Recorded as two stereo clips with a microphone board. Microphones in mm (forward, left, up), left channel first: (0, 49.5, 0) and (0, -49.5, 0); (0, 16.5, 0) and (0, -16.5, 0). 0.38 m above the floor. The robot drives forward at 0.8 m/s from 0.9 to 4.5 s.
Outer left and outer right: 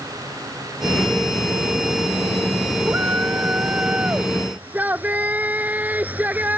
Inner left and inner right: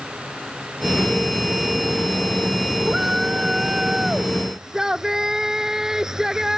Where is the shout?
20° right (ahead or behind); by 6.6 s 15° right (ahead or behind).